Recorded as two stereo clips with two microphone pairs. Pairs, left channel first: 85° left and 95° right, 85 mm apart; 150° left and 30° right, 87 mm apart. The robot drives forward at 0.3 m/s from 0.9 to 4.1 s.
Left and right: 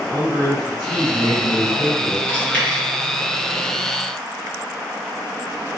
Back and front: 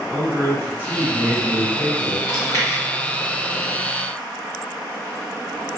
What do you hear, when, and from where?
0.1 s a man speaking: 100° right, 1.9 m; by 2.2 s 110° right, 2.0 m
2.3 s chewing: 140° left, 1.4 m; by 2.8 s 150° left, 1.5 m